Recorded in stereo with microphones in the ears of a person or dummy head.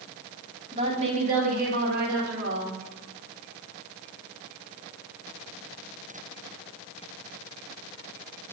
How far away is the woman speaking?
About 1.8 m.